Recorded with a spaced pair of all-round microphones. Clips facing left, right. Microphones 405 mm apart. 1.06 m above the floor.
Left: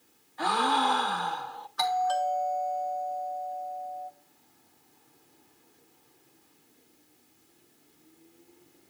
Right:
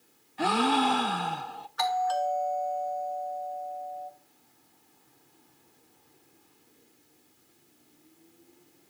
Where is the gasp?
45° right (ahead or behind), 0.6 m.